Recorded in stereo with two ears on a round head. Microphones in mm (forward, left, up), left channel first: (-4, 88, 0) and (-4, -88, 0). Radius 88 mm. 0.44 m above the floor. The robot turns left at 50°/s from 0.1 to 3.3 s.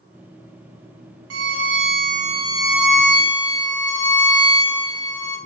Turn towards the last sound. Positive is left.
turn(degrees=160)